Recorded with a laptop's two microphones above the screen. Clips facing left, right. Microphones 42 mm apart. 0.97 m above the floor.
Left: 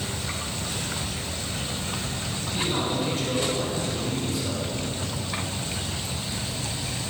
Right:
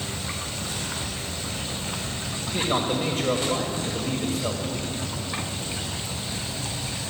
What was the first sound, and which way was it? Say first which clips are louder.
A man speaking: right 3 dB; 45° right (ahead or behind).